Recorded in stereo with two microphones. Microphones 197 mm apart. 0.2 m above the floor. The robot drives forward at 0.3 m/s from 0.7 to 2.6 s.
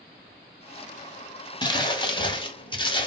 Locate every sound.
1.6 s crumpling: 20° left (ahead or behind), 0.7 m; by 3.1 s 25° left (ahead or behind), 0.6 m